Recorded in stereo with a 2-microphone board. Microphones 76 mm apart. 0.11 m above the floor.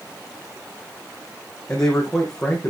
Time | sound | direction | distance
1.7 | a man speaking | 10° left (ahead or behind) | 4.5 m